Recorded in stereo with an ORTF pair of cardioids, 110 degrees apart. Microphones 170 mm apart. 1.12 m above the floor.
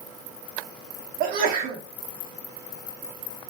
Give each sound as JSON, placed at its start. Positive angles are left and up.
{"t": 1.2, "sound": "a sneeze", "azimuth_deg": -65, "distance_m": 1.2}